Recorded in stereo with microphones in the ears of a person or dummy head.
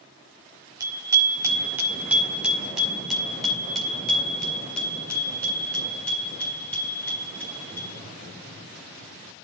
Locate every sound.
0.8 s a bicycle bell: 20° right (ahead or behind), 4 m; by 8.0 s 10° left (ahead or behind), 14 m